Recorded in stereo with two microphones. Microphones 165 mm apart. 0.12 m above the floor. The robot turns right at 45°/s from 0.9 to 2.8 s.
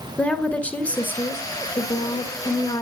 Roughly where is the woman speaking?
Centre.